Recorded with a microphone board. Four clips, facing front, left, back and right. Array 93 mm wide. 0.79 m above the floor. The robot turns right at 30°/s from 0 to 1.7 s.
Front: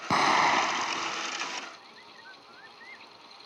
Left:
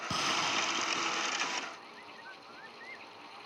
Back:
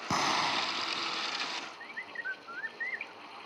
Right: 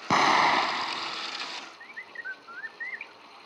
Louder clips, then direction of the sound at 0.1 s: Right 13 dB, front 7 dB; 65° right.